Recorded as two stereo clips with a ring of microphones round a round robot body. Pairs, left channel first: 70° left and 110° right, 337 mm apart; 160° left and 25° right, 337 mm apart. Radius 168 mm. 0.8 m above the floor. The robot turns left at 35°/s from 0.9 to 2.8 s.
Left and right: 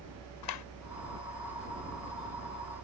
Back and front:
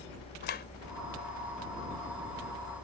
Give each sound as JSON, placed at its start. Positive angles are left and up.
{"t": 0.4, "sound": "a clap", "azimuth_deg": 95}